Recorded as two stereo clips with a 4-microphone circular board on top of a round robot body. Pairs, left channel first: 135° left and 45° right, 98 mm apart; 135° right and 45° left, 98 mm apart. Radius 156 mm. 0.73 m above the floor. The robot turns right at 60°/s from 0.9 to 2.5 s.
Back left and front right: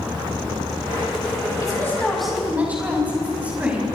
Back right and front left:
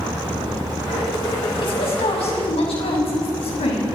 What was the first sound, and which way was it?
A woman speaking, 170° right.